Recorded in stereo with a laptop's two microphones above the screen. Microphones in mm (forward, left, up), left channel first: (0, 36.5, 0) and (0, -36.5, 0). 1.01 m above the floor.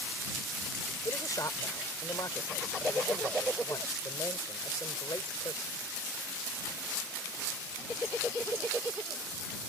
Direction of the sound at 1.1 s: 55° left (ahead or behind).